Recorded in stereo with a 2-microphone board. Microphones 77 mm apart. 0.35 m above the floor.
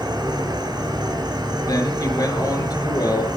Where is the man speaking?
55° left (ahead or behind), 4.5 m.